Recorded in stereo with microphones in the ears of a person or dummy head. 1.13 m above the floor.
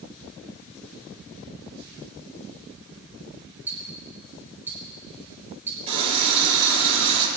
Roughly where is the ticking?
Centre.